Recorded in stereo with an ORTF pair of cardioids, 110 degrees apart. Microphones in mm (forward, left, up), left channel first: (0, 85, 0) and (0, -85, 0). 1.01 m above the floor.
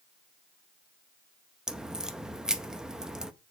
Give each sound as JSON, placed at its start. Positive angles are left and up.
{"t": 1.7, "sound": "a crack", "azimuth_deg": -5, "distance_m": 0.7}